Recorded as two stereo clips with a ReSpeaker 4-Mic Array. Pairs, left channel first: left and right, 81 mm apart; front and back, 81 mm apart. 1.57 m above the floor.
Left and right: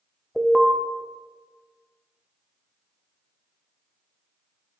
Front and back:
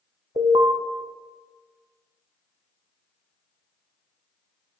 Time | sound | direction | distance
0.4 | an alarm | 175° left | 0.5 m